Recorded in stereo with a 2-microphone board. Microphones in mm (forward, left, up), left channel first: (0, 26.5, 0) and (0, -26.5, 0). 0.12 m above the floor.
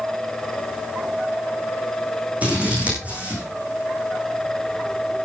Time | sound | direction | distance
2.4 | scissors | 25° right (ahead or behind) | 7 m